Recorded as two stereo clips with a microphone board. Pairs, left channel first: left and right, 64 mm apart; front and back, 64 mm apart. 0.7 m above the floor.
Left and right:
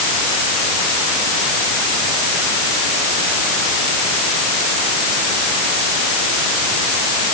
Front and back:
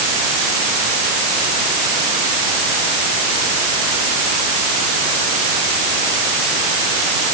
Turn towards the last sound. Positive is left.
No sound to turn to.